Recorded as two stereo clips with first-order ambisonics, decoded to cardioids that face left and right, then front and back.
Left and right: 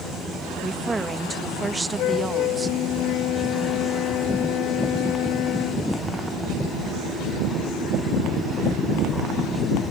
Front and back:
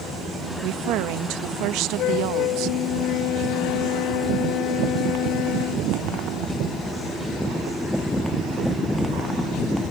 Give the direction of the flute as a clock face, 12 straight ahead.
10 o'clock.